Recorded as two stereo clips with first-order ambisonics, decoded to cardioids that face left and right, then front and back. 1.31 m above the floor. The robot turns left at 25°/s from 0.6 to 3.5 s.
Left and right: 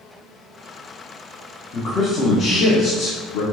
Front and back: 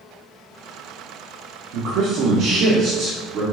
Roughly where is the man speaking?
Behind left.